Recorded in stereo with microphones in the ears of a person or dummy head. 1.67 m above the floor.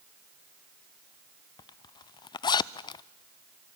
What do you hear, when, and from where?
1.6 s a zipper: 25° left (ahead or behind), 0.6 m